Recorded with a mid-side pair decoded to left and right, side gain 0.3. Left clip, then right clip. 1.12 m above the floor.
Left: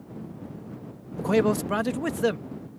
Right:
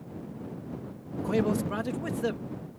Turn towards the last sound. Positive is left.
turn(degrees=70)